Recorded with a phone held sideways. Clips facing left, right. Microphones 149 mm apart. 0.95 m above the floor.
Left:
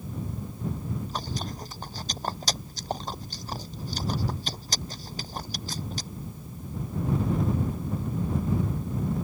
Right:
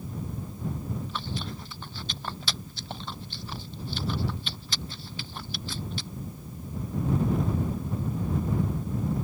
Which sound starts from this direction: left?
Chewing, at 1.1 s.